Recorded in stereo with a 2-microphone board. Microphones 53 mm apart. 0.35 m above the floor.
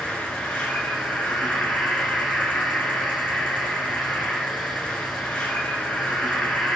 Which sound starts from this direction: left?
An insect, at 0.0 s.